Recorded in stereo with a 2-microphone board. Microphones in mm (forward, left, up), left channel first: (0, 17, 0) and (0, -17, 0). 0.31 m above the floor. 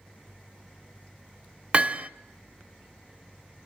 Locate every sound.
1.7 s hammering: 35° right (ahead or behind), 0.8 m